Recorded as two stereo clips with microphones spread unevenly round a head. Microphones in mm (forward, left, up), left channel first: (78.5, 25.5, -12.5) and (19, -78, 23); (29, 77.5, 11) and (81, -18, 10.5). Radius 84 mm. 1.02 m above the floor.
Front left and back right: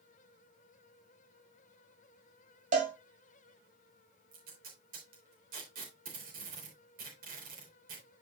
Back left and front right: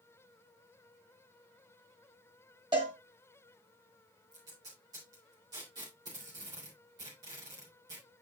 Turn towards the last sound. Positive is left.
turn(degrees=-125)